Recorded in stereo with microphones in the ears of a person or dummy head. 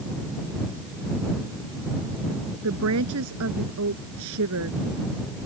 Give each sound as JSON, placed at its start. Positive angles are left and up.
{"t": 2.6, "sound": "a woman speaking", "side_deg": -75}